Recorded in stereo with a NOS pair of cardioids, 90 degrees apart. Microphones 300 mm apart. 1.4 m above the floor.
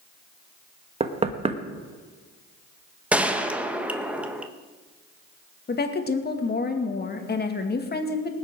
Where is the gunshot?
5° right, 1.4 m.